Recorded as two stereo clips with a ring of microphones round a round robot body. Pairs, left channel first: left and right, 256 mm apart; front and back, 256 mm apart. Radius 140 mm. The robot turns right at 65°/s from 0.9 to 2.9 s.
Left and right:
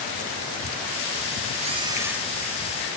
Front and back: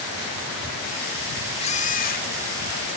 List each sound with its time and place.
1.6 s a camera shutter: 45° right; by 2.3 s 5° right